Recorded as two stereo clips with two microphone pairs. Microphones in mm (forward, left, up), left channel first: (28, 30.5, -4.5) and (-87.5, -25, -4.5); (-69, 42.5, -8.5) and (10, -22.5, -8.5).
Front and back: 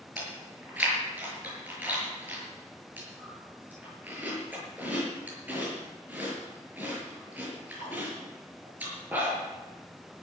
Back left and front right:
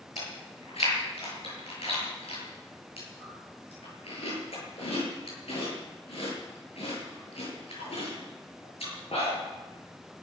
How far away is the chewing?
About 8 m.